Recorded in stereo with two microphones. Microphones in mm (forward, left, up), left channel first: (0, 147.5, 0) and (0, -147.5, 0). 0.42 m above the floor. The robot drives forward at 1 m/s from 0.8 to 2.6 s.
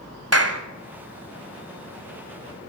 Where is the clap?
55° right (ahead or behind), 1.7 m.